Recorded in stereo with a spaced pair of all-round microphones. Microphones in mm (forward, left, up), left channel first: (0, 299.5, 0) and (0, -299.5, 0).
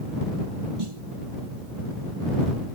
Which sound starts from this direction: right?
A snare drum, at 0.8 s.